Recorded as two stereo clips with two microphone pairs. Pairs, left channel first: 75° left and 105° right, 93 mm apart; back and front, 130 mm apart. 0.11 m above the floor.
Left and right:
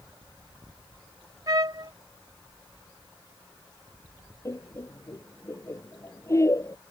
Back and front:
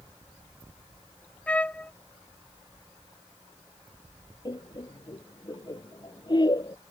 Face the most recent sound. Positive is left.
turn(degrees=130)